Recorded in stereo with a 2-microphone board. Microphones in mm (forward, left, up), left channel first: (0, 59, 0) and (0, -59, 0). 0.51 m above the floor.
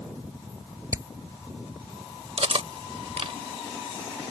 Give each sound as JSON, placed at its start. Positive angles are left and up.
{"t": 0.9, "sound": "hammering", "side_deg": -30}
{"t": 2.4, "sound": "cutlery clinking", "side_deg": -65}